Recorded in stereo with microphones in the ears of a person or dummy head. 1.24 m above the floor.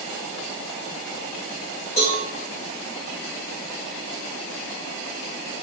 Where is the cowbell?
35° left (ahead or behind), 1.4 m.